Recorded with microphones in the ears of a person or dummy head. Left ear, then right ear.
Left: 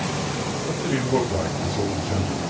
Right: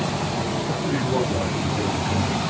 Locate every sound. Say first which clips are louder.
0.7 s a man speaking: even; 60° left (ahead or behind), 6.5 m